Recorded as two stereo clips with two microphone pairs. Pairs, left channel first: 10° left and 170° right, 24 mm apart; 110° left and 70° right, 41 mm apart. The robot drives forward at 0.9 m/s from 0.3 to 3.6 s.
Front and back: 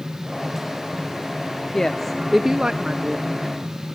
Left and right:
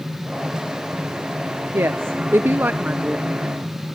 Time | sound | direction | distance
1.7 | a woman speaking | 55° right | 1.0 m